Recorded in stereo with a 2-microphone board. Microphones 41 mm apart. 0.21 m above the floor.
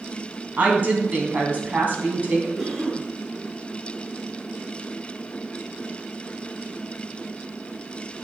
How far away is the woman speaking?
About 1.8 m.